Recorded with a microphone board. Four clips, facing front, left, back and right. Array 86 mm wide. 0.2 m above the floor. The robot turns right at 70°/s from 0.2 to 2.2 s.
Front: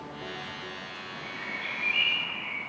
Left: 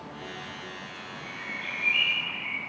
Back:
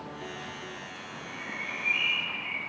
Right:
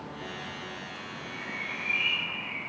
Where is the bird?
5° left, 3.5 m; by 2.6 s 75° left, 3.5 m.